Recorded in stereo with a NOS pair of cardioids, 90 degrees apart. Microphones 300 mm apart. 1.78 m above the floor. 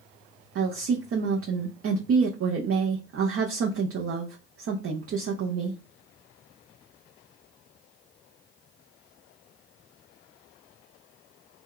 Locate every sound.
0.6 s a woman speaking: 50° right, 0.7 m